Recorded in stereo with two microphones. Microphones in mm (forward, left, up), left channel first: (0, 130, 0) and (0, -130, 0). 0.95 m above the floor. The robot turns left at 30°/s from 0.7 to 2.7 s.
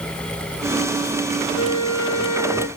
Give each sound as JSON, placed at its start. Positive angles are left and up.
{"t": 1.6, "sound": "a flute", "azimuth_deg": 130, "distance_m": 1.5}